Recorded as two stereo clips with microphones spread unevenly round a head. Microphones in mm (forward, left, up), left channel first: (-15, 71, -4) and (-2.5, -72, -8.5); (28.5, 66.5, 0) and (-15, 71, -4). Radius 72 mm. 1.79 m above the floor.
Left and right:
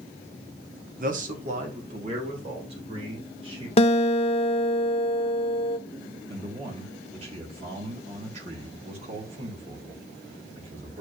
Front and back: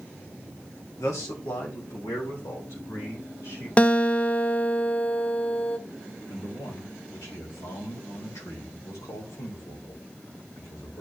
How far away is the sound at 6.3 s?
About 2.5 m.